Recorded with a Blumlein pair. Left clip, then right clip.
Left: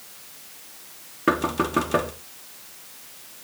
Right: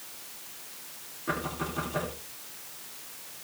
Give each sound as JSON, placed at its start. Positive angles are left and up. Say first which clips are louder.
{"t": 1.3, "sound": "knocking", "louder": "left 10 dB", "azimuth_deg": 40, "distance_m": 3.0}